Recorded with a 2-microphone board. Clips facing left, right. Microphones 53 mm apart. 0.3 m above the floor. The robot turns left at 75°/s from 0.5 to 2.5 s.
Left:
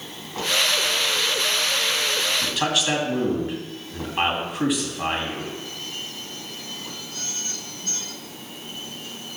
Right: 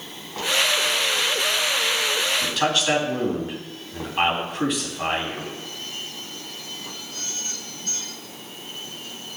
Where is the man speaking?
Centre (ahead or behind), 2.5 m; by 5.5 s 5° left (ahead or behind), 2.5 m.